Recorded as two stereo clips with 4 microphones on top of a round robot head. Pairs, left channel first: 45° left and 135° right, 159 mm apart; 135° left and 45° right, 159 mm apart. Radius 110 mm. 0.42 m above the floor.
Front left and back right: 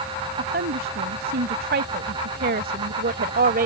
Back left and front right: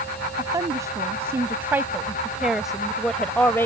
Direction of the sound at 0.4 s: 115° right.